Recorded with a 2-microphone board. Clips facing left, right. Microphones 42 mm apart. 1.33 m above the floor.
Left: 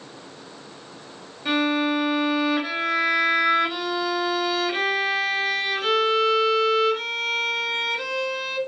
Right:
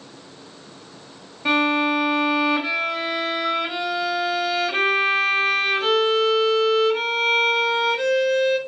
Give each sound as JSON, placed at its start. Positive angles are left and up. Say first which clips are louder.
{"t": 1.4, "sound": "a violin", "louder": "right 3 dB", "side_deg": -75, "distance_m": 1.2}